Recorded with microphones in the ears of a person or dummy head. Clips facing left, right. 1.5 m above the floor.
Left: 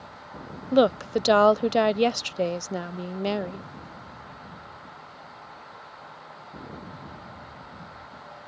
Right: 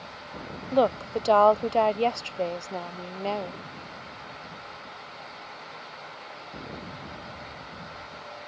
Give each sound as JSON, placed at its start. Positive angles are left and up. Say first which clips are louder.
{"t": 0.7, "sound": "a woman speaking", "louder": "left 3 dB", "side_deg": 25}